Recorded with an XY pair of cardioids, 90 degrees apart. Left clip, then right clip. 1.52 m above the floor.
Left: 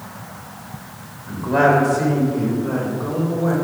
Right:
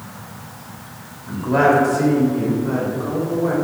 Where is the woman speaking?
10° right, 3.5 m.